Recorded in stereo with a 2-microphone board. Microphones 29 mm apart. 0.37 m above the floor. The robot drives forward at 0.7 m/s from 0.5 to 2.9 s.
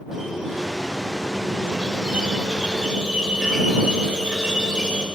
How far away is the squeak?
About 1.4 m.